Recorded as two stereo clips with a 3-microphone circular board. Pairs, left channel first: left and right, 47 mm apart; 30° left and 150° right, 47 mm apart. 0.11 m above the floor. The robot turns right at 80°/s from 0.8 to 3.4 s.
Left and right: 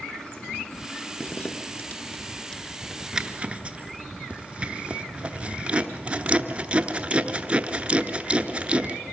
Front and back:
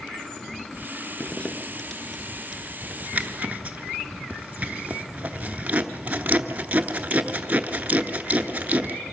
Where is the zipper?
50° left, 0.8 m; by 9.0 s 135° right, 0.8 m.